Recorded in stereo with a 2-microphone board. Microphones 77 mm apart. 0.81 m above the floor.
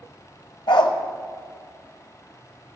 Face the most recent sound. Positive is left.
turn(degrees=75)  # may be behind; listen again after turning